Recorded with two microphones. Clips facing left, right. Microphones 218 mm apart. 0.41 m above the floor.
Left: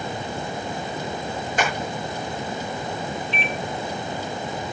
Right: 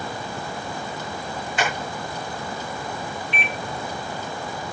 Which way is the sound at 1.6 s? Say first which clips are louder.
Left 1 dB; 50° left (ahead or behind).